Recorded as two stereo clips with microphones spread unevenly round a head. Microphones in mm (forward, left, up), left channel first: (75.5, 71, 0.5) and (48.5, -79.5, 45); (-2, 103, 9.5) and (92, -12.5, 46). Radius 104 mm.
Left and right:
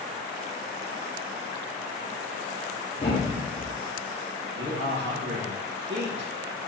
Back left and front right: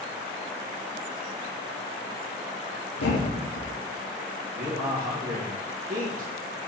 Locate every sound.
3.0 s a thud: 155° left, 0.7 m
4.5 s a man speaking: 95° right, 1.3 m